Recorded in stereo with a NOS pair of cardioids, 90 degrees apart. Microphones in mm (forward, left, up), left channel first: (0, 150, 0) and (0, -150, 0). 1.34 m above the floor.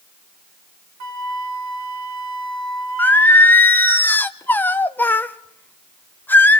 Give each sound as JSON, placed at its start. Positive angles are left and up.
{"t": 1.0, "sound": "a flute", "azimuth_deg": -60, "distance_m": 1.5}
{"t": 3.0, "sound": "singing", "azimuth_deg": 5, "distance_m": 0.6}